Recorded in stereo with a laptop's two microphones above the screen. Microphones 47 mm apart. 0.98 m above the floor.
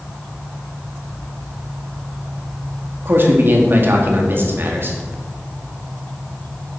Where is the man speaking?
50° right (ahead or behind), 1.6 m.